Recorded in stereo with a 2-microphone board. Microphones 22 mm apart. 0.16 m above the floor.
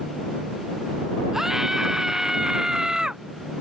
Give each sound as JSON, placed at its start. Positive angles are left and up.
{"t": 1.3, "sound": "a scream", "side_deg": -20}